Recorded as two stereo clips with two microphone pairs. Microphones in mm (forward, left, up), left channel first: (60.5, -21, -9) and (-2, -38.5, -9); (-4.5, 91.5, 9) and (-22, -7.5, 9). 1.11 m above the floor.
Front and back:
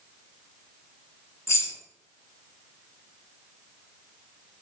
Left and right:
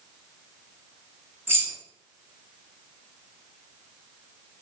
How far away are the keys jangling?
About 0.6 m.